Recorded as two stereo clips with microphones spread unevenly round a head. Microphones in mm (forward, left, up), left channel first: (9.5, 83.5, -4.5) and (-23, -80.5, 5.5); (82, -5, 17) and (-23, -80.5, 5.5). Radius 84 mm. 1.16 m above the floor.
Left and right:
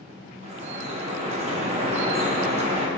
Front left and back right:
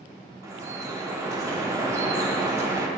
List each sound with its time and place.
0.4 s dripping: 85° right, 0.8 m